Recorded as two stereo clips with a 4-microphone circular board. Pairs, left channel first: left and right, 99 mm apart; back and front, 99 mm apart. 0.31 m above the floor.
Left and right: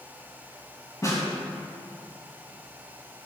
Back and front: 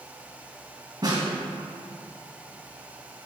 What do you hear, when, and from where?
1.0 s a snare drum: 40° left, 3 m